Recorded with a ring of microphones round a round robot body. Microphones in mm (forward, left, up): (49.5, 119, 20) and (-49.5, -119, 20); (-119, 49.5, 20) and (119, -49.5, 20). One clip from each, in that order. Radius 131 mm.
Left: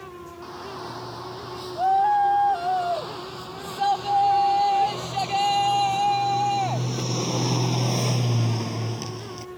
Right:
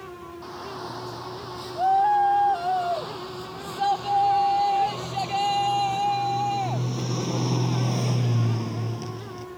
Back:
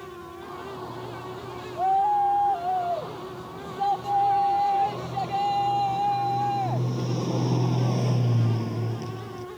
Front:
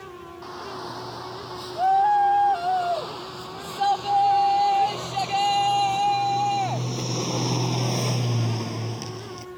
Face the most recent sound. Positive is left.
turn(degrees=10)